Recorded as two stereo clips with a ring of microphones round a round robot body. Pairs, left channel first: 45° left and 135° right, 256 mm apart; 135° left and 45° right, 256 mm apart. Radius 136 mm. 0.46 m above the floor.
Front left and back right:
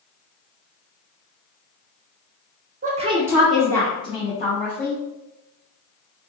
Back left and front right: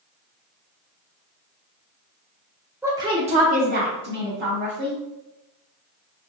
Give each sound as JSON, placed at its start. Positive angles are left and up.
{"t": 2.8, "sound": "a woman speaking", "azimuth_deg": -120, "distance_m": 0.7}